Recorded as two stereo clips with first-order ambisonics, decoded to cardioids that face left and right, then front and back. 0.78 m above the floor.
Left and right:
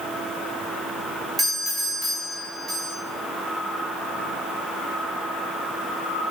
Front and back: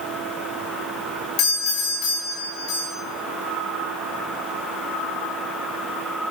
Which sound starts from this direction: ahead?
A doorbell, at 1.4 s.